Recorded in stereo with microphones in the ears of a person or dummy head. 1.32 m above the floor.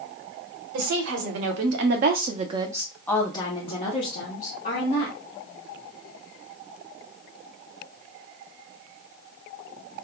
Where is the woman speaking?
85° right, 1.3 m; by 5.2 s 50° left (ahead or behind), 1.6 m.